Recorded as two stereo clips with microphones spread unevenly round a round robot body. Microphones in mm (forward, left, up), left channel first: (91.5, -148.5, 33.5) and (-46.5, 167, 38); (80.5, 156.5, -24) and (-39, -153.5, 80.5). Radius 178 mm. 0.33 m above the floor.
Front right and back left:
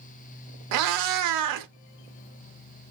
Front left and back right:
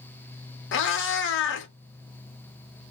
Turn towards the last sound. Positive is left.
turn(degrees=95)